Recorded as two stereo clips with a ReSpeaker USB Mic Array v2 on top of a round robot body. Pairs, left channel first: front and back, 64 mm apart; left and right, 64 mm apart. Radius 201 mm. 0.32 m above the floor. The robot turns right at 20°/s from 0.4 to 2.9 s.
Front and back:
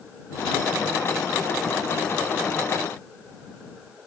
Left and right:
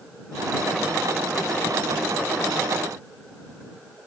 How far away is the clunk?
No clunk in this recording.